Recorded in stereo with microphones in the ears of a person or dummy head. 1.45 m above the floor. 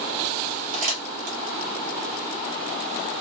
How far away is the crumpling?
About 1.1 m.